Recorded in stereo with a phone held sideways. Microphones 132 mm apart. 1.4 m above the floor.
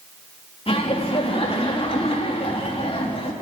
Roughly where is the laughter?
Left.